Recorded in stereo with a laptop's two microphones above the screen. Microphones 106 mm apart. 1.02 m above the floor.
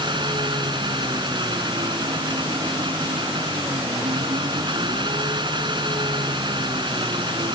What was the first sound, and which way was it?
An engine running, 45° right (ahead or behind).